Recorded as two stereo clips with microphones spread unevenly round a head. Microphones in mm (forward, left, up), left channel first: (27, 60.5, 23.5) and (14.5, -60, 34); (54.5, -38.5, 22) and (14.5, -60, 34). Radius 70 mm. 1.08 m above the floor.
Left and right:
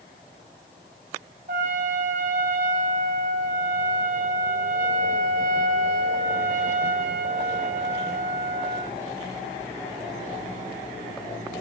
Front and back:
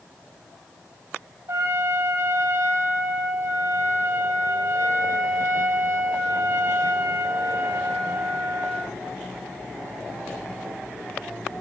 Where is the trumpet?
125° right, 5 m.